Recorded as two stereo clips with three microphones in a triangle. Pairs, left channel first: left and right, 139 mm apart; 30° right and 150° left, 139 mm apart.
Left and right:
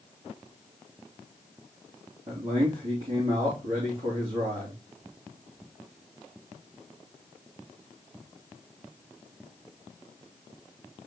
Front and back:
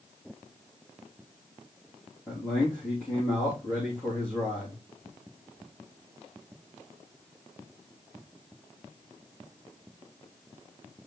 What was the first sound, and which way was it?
A man speaking, 110° right.